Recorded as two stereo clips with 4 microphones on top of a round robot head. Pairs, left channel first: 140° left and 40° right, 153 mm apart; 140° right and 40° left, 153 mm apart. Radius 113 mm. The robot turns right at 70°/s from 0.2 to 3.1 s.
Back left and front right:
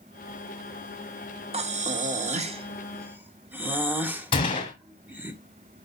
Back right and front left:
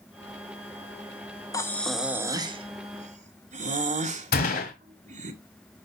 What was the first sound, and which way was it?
Breathing, 75° right.